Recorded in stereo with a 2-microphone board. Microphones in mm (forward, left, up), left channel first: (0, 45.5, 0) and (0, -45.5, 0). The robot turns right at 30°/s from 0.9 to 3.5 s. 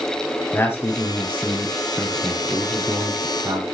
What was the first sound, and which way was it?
A man speaking, 30° left (ahead or behind).